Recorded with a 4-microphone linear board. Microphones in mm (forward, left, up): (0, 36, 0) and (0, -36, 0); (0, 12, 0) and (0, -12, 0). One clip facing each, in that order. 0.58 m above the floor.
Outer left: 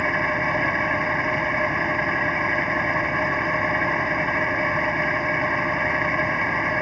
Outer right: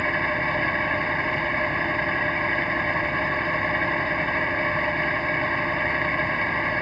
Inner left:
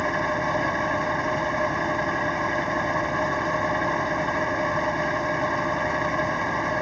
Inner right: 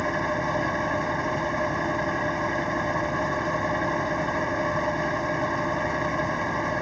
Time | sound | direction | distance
0.0 | an engine running | 15° left (ahead or behind) | 1.0 m